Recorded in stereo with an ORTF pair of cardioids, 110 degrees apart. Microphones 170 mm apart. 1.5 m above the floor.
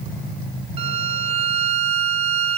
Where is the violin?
35° right, 0.7 m.